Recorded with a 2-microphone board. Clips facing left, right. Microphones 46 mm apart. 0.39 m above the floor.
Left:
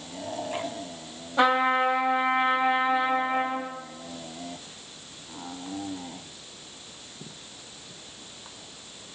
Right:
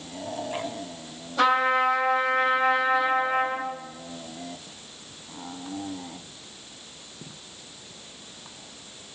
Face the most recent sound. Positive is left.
turn(degrees=25)  # may be behind; listen again after turning